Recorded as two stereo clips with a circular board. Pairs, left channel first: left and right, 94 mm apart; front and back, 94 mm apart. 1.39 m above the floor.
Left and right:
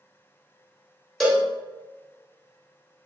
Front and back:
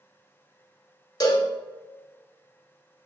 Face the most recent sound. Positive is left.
turn(degrees=5)